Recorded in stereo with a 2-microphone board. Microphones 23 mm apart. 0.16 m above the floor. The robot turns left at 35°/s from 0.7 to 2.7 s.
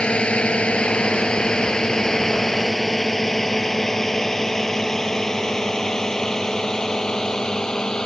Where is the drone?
50° left (ahead or behind); by 8.1 s 30° left (ahead or behind).